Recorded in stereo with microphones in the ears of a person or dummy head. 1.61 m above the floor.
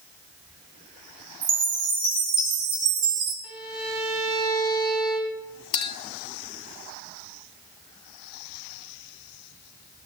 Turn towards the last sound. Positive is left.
turn(degrees=30)  # may be behind; listen again after turning